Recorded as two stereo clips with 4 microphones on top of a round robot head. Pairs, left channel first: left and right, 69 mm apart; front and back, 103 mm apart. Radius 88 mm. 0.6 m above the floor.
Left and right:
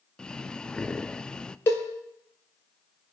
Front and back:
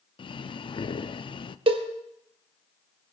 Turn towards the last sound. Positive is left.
turn(degrees=150)